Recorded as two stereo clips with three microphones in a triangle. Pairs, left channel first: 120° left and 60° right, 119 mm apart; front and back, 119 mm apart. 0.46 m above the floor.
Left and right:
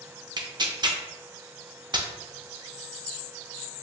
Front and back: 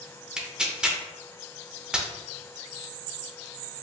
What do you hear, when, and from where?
0.4 s tearing paper: 100° right, 0.5 m